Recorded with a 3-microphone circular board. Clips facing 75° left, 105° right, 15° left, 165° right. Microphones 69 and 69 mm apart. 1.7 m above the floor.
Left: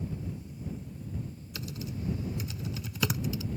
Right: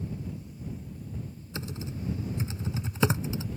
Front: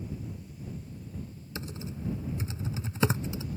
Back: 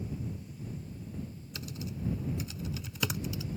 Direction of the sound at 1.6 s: 45° right.